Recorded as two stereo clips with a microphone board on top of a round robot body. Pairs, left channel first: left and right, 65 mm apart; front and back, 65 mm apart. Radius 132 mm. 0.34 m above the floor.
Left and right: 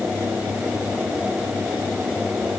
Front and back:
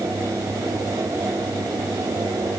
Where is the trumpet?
I don't hear a trumpet.